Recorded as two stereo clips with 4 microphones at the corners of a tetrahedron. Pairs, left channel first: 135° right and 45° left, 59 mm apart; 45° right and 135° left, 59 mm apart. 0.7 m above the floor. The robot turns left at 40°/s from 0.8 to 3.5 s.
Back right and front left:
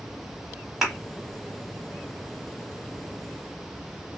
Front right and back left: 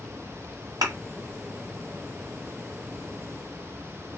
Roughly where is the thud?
Behind left.